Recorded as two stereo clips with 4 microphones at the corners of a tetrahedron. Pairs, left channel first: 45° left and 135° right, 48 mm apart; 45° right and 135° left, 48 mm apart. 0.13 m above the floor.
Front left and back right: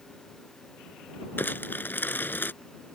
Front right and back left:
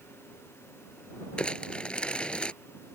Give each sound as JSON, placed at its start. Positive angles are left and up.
{"t": 1.4, "sound": "crumpling", "azimuth_deg": 20}